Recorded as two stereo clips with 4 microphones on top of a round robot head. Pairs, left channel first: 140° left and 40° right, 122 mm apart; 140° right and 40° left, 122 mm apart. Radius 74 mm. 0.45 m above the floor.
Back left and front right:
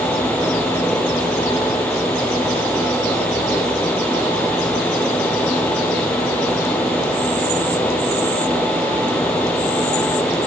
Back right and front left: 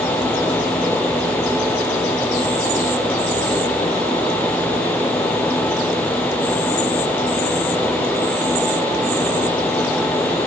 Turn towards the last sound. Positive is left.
No sound to turn to.